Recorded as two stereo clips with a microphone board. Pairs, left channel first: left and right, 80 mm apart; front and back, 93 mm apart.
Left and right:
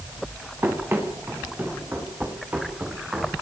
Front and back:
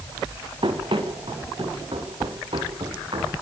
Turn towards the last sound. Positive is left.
turn(degrees=-160)